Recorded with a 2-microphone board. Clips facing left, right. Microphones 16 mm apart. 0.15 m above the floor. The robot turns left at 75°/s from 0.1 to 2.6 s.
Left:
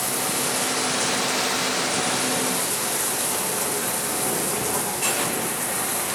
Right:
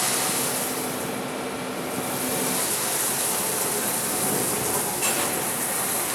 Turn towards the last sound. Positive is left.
turn(degrees=5)